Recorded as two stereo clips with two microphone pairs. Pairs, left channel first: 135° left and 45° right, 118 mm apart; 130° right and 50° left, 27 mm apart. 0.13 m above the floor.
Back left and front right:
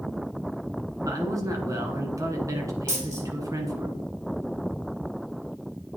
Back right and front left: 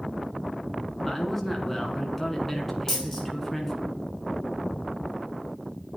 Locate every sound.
1.1 s a man speaking: 55° right, 1.3 m
2.9 s a dropped coin: 45° right, 2.5 m